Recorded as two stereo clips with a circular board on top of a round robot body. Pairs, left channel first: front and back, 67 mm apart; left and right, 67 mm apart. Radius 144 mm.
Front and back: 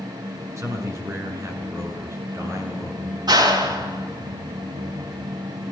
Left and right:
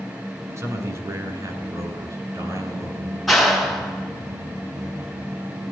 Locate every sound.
0.6 s a man speaking: 135° right, 8 m; by 3.2 s 130° right, 11 m
3.3 s a clap: straight behind, 6.5 m